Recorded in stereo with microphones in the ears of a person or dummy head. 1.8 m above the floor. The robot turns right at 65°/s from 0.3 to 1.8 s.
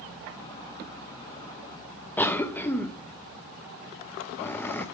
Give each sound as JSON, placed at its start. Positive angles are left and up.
{"t": 2.2, "sound": "a cough", "side_deg": 5, "distance_m": 0.9}